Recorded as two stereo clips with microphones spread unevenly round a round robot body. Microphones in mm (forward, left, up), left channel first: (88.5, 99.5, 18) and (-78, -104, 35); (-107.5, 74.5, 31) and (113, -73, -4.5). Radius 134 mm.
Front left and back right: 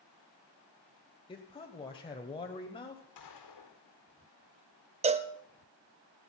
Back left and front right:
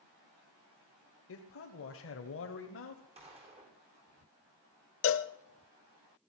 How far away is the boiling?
I don't hear boiling.